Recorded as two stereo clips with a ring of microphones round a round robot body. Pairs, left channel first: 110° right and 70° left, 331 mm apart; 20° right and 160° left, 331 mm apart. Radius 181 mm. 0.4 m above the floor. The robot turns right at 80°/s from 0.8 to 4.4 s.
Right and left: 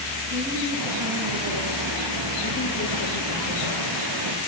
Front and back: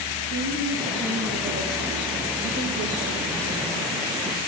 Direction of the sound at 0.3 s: 35° left.